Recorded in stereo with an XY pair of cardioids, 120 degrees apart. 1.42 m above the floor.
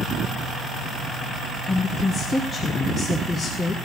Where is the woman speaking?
20° left, 1.2 m.